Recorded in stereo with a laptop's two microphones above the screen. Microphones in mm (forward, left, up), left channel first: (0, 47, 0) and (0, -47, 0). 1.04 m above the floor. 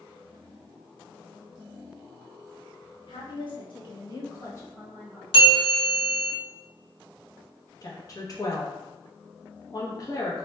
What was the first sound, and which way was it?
A woman speaking, 55° left (ahead or behind).